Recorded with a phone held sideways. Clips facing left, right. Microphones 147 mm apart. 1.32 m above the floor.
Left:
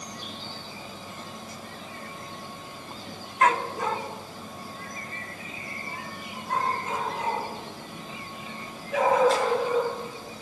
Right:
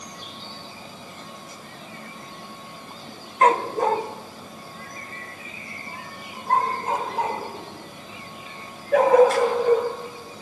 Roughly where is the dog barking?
Right.